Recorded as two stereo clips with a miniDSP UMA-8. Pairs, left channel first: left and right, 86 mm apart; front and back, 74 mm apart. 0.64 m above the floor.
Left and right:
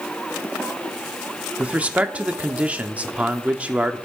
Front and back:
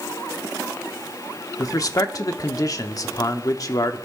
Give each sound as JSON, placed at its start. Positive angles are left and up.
{"t": 1.6, "sound": "a man speaking", "azimuth_deg": -20, "distance_m": 1.1}